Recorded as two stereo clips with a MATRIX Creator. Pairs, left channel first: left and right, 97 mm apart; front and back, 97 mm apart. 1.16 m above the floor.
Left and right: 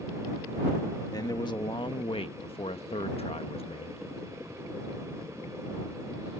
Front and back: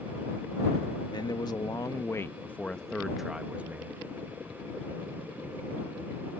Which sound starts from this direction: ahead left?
A man speaking, at 1.1 s.